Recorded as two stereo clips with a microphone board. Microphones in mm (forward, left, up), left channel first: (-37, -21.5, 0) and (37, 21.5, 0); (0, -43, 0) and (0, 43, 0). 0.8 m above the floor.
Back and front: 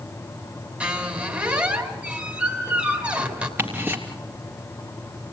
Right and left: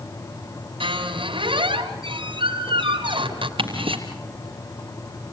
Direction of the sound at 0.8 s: 105° left.